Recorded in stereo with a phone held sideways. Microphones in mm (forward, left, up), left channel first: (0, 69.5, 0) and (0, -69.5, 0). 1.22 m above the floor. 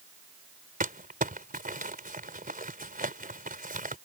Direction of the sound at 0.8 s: 85° right.